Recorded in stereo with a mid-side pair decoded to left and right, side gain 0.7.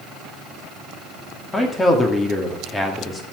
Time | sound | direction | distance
1.5 | a man speaking | 20° left | 2.5 m